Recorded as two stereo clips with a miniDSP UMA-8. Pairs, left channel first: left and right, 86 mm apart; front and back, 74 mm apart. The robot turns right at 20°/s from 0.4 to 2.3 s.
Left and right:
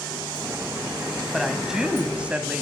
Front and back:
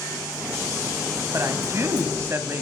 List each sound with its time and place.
1.3 s a woman speaking: 175° right, 1.5 m; by 2.6 s 155° right, 1.5 m